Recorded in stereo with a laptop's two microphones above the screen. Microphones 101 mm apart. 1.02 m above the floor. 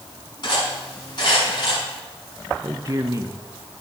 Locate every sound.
0.4 s cutlery clinking: 45° left (ahead or behind), 6.5 m
2.6 s a man speaking: 35° right (ahead or behind), 0.8 m